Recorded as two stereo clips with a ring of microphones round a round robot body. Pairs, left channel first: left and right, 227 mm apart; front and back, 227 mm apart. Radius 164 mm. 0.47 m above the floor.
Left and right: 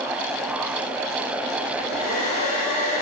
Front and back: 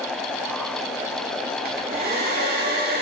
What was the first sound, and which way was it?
A hair dryer, 130° left.